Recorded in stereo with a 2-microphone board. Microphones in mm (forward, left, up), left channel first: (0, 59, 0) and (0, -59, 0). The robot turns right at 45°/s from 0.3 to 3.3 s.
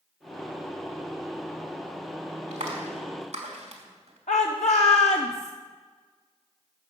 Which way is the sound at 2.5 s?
75° right (ahead or behind).